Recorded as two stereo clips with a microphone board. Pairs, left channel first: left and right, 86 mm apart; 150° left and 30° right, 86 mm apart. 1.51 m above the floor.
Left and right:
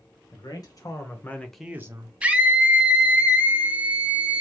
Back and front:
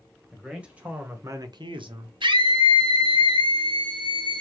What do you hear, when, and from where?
0.3 s a man speaking: 50° left, 2.0 m; by 2.1 s 50° right, 0.9 m
2.2 s a scream: 15° right, 0.8 m